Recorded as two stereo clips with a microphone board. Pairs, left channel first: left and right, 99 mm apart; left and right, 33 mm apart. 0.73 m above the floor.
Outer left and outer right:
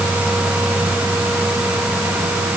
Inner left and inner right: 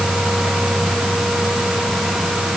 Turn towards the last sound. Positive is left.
No sound to turn to.